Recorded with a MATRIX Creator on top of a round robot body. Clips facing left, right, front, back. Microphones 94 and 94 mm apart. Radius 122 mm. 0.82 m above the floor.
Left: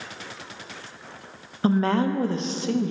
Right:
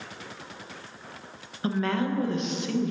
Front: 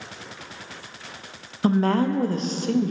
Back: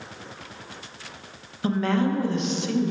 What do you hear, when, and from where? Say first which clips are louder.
1.6 s a woman speaking: left 5 dB, front 3 dB; 40° left, 0.5 m